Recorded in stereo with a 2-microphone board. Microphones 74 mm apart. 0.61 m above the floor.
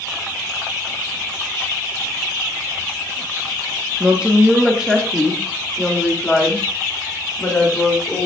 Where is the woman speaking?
20° right (ahead or behind), 1.0 m; by 8.3 s 10° left (ahead or behind), 3.5 m.